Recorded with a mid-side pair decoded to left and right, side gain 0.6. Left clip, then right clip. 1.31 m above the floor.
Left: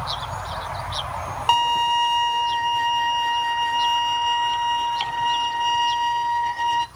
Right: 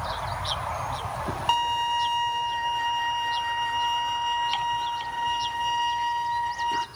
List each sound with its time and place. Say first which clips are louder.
1.5 s a violin: left 6 dB; 20° left, 0.7 m